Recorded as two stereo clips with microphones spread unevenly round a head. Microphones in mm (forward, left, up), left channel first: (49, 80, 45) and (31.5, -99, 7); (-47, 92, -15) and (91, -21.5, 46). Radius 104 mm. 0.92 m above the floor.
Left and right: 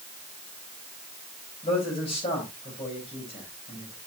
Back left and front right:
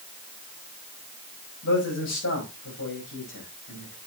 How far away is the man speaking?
About 5 m.